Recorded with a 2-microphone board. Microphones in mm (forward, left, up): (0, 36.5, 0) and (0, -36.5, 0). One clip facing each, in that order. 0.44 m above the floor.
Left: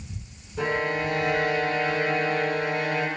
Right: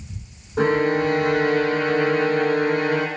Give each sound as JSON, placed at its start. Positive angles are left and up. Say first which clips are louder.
{"t": 0.6, "sound": "a violin", "louder": "right 7 dB", "side_deg": -60, "distance_m": 0.7}